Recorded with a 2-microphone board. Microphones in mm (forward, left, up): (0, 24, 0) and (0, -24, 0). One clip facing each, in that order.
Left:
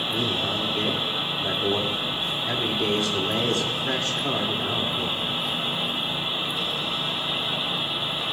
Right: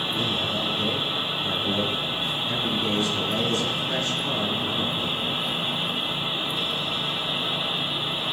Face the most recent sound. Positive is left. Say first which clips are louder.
# left 1 dB
turn(degrees=80)